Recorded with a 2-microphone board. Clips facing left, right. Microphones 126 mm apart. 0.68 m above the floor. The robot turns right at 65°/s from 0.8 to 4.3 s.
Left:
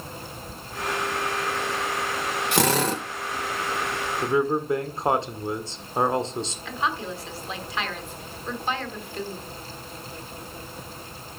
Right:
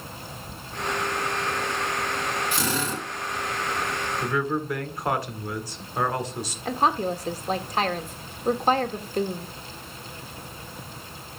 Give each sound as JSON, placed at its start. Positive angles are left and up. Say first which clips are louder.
{"t": 2.5, "sound": "a drill", "louder": "left 5 dB", "azimuth_deg": 75, "distance_m": 1.8}
{"t": 4.2, "sound": "a man speaking", "louder": "left 5 dB", "side_deg": 20, "distance_m": 1.7}
{"t": 6.7, "sound": "a woman speaking", "louder": "right 8 dB", "side_deg": -45, "distance_m": 1.5}